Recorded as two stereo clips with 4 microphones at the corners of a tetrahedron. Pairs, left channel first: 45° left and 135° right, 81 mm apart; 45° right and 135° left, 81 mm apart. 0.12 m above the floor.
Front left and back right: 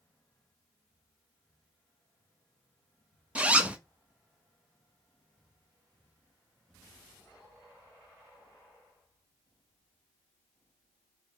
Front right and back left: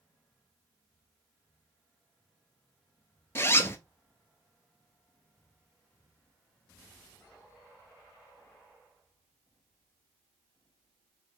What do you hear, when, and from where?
3.4 s a zipper: 70° right, 0.6 m